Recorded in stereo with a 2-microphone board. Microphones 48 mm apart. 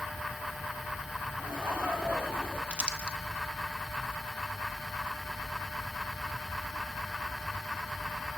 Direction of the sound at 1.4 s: 55° right (ahead or behind).